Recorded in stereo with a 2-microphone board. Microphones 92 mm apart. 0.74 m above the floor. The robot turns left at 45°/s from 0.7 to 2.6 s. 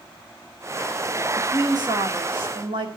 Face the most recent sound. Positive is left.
turn(degrees=-95)